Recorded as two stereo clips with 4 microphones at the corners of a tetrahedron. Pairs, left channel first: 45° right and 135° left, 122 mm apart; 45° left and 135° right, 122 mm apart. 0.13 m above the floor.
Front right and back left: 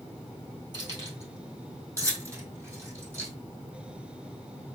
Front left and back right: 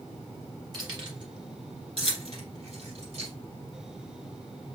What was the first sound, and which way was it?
Keys jangling, 175° left.